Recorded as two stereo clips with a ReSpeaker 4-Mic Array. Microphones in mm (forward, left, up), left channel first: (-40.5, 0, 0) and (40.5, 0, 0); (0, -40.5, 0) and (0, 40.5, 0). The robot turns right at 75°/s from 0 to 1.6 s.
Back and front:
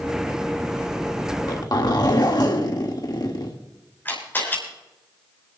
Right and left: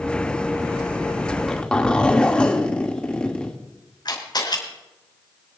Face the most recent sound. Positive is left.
turn(degrees=-115)